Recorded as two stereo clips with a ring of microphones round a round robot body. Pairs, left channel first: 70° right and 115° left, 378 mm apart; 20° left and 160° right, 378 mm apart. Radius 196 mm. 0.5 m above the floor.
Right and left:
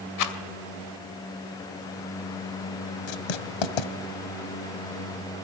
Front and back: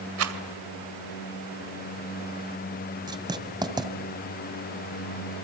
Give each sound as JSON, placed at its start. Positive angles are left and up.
{"t": 0.2, "sound": "a rattle", "azimuth_deg": -105, "distance_m": 2.0}
{"t": 3.1, "sound": "writing", "azimuth_deg": -80, "distance_m": 2.0}